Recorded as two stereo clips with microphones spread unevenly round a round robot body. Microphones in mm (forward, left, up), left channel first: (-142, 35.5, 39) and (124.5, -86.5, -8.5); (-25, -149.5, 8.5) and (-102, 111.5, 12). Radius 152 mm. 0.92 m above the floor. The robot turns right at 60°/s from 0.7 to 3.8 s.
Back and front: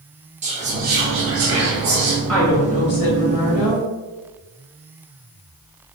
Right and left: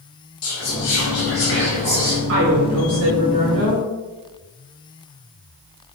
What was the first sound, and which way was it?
Whispering, 80° right.